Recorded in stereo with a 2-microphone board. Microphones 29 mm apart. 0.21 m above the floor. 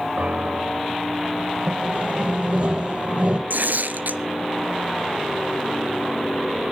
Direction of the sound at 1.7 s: 50° right (ahead or behind).